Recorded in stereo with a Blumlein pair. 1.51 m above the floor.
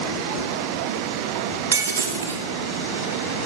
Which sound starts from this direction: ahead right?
Breaking glass, at 1.7 s.